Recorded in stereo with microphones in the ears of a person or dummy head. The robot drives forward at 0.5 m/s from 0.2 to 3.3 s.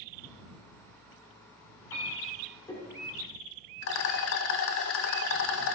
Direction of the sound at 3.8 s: 70° left (ahead or behind).